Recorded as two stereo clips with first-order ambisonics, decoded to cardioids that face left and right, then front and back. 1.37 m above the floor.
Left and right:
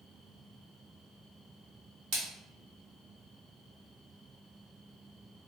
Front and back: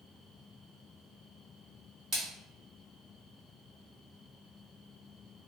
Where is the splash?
120° right, 1.7 m.